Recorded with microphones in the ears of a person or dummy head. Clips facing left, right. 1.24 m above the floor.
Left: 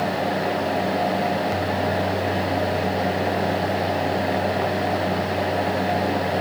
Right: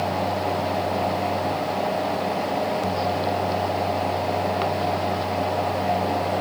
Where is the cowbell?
I don't hear a cowbell.